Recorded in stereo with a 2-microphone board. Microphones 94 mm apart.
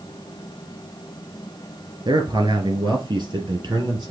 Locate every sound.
2.0 s a man speaking: 50° right (ahead or behind), 2.5 m; by 4.1 s 45° right (ahead or behind), 4 m